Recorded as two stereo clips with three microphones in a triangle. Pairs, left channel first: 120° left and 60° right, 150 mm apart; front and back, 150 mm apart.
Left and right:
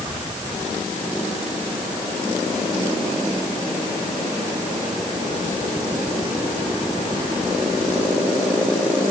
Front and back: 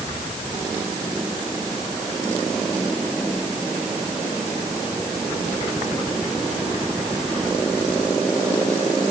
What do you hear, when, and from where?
Only background noise.